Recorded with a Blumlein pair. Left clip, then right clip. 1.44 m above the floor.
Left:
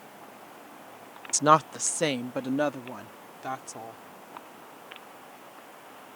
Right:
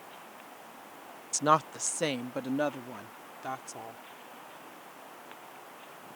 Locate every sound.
1.3 s a woman speaking: 15° left; by 4.0 s 5° left